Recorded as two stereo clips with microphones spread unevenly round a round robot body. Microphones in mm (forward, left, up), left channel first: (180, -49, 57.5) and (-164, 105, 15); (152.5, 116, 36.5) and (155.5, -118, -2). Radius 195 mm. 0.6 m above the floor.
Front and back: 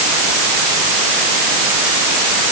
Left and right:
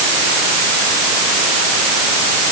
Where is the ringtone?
I don't hear a ringtone.